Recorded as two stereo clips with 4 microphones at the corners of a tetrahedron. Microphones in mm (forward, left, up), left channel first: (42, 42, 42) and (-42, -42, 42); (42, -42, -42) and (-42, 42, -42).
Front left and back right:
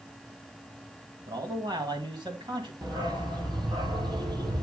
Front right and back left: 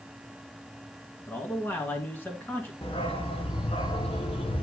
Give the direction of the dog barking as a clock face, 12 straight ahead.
3 o'clock.